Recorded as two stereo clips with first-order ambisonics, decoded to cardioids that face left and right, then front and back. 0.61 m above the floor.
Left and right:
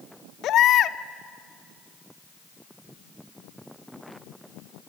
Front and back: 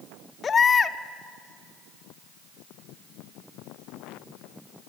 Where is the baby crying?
60° left, 0.5 m.